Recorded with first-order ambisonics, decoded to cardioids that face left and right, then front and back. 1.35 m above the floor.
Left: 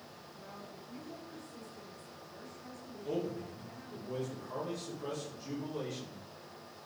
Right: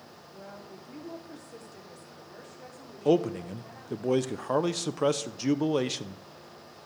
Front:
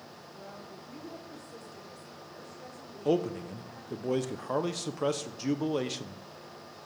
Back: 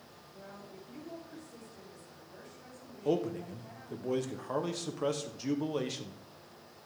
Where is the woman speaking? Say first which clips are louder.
Right 5 dB, front 2 dB; 70° right, 4 m.